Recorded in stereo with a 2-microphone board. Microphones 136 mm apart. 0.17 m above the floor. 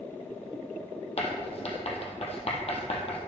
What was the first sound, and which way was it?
Writing, 50° left (ahead or behind).